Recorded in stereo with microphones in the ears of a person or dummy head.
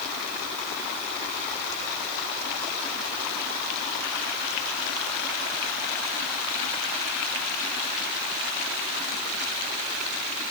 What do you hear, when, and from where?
Only background noise.